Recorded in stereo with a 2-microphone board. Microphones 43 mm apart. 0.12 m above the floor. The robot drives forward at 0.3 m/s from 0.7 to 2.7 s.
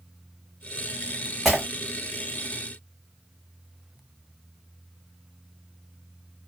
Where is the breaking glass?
5° left (ahead or behind), 3 m.